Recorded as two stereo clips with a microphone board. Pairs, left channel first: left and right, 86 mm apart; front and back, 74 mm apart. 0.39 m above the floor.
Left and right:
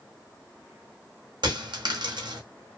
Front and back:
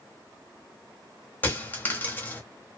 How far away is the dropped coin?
About 0.7 m.